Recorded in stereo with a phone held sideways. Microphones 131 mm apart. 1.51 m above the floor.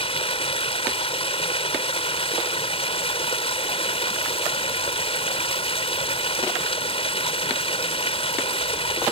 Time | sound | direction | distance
0.0 | running water | 50° left (ahead or behind) | ?